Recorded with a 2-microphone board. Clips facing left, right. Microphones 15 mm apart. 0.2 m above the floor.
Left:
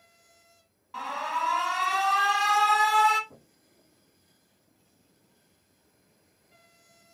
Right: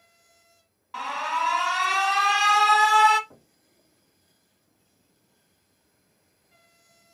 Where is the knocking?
45° right (ahead or behind), 1.2 m.